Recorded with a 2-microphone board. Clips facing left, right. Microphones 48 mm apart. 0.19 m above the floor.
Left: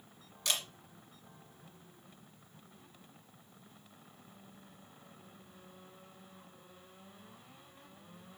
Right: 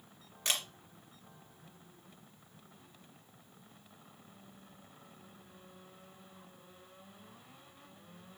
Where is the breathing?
No breathing in this recording.